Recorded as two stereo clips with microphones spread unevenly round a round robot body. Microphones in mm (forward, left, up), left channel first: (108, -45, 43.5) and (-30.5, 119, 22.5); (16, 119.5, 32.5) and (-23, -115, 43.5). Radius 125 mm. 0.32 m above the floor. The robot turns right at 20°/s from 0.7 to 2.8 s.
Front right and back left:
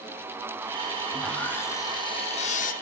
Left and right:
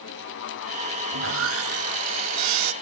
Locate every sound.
1.1 s sawing: 140° right, 0.6 m; by 2.7 s 110° right, 0.6 m